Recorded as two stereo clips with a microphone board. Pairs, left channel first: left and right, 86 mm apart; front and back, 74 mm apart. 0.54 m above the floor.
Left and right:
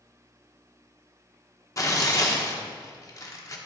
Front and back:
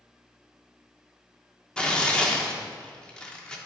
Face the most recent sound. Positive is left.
turn(degrees=70)